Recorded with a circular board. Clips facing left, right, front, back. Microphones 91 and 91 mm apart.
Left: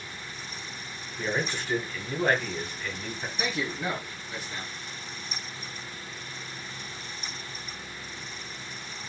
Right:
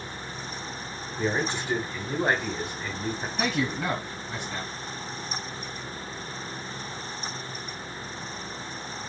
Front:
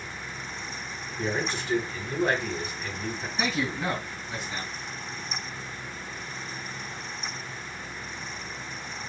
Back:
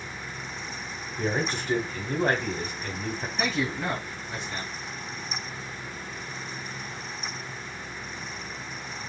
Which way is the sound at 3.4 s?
80° right.